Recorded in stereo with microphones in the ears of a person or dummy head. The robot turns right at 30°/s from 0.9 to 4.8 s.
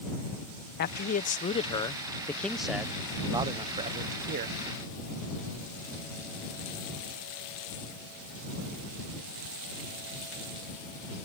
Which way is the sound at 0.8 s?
130° left.